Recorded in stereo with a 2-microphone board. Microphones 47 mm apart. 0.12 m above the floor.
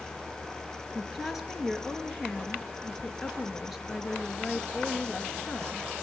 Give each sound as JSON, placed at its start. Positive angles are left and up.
{"t": 0.9, "sound": "a woman speaking", "side_deg": 0, "distance_m": 2.5}